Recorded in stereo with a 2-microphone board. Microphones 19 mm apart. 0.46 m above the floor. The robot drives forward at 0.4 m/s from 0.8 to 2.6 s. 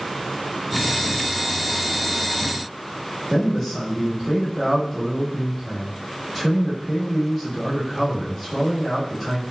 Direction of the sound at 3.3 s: 15° left (ahead or behind).